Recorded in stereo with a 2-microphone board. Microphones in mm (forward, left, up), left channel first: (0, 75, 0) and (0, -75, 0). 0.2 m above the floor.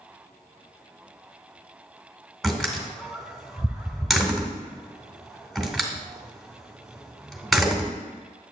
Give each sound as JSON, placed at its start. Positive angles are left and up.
{"t": 2.4, "sound": "a door slam", "side_deg": 0, "distance_m": 1.2}